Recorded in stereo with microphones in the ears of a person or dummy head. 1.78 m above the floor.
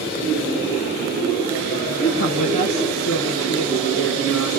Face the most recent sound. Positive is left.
turn(degrees=50)  # may be behind; listen again after turning